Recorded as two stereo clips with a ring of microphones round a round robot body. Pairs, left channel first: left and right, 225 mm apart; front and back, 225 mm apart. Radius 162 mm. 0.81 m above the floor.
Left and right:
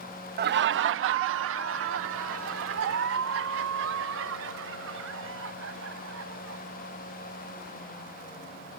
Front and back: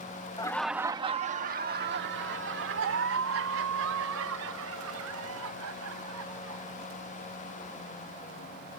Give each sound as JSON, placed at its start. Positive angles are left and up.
{"t": 0.4, "sound": "laughter", "azimuth_deg": -65}